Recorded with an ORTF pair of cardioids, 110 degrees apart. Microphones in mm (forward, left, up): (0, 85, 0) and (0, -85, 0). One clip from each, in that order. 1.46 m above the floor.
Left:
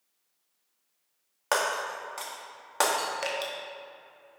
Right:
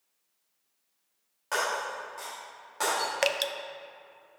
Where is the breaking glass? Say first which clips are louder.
Left 2 dB; 65° left, 1.8 m.